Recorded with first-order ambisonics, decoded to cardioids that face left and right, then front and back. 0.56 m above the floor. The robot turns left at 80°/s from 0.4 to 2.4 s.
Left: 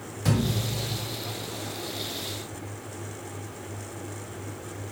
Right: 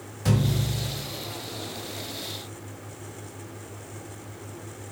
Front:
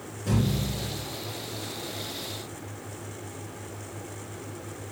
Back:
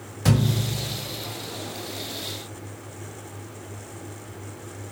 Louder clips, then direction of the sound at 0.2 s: Even, back 4 dB; straight behind.